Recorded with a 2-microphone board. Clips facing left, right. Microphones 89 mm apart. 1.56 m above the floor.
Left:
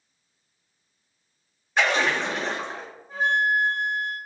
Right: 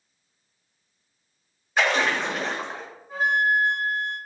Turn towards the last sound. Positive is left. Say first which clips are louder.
# right 1 dB
turn(degrees=-5)  # may be behind; listen again after turning